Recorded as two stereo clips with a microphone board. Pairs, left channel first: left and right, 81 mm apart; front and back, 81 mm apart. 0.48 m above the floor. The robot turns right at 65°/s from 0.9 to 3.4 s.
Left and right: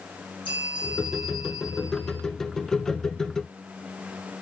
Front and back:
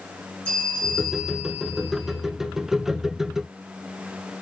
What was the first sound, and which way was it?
A bell, 75° left.